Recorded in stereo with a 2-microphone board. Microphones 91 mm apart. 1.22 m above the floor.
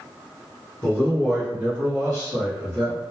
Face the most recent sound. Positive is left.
turn(degrees=-60)  # may be behind; listen again after turning